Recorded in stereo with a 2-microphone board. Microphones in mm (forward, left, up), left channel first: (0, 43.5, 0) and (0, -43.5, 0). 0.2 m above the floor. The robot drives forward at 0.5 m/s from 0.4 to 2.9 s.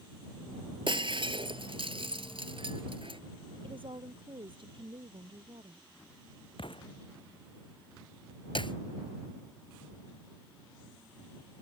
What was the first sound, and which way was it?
Breaking glass, 65° right (ahead or behind).